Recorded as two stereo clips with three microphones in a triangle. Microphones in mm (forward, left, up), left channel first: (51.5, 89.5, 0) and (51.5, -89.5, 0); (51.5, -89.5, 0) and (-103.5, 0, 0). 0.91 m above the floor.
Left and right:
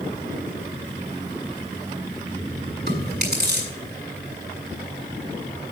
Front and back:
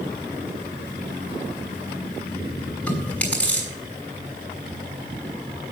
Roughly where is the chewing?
Behind right.